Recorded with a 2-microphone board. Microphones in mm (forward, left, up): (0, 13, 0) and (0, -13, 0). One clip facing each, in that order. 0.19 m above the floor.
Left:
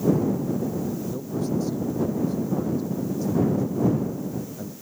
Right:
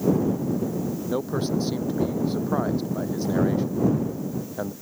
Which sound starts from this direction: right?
A man speaking, at 1.1 s.